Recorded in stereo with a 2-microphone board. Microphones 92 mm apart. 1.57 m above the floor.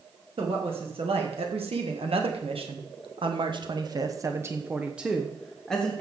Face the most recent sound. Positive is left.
turn(degrees=10)  # may be behind; listen again after turning